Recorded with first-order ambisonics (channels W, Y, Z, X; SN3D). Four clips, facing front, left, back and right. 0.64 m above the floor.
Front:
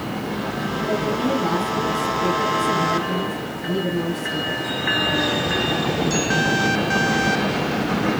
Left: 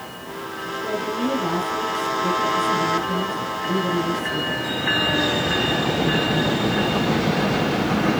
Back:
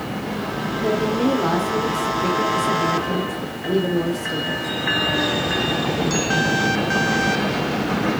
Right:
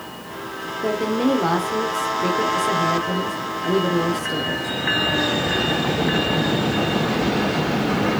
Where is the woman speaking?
125° right, 1.6 m.